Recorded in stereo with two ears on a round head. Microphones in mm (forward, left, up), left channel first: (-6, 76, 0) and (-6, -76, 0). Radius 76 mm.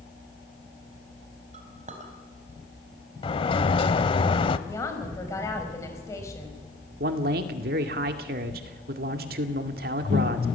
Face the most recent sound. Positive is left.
turn(degrees=-60)  # may be behind; listen again after turning